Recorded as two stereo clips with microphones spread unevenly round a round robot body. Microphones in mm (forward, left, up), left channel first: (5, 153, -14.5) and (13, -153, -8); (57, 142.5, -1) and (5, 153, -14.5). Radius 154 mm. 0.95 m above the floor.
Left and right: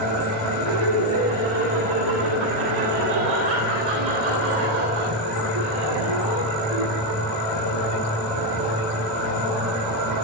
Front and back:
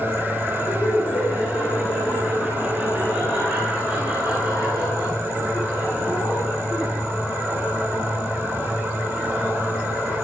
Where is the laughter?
100° right, 9.5 m; by 7.0 s 110° right, 13.5 m.